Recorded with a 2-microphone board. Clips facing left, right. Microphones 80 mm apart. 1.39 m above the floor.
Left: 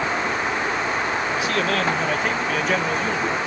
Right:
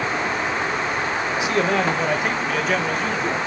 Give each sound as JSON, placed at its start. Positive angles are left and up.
{"t": 1.4, "sound": "a man speaking", "side_deg": -20, "distance_m": 1.5}